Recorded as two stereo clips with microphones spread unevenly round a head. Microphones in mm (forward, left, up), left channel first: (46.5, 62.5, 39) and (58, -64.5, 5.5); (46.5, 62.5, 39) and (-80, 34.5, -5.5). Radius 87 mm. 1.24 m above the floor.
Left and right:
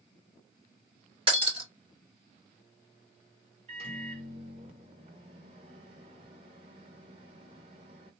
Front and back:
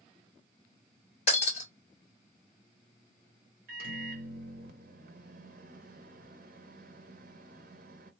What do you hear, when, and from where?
1.3 s breaking glass: 35° right, 2.5 m
3.7 s a microwave: 145° right, 0.8 m